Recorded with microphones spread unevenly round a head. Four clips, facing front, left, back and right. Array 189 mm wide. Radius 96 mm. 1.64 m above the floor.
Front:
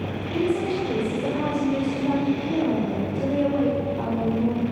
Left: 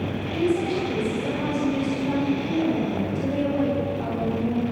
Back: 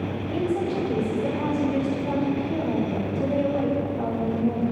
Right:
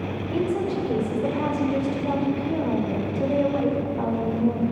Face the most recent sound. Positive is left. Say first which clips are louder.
# left 1 dB, front 2 dB
turn(degrees=-50)